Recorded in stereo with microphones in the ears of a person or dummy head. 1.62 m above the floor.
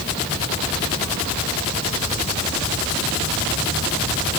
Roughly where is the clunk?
I don't hear a clunk.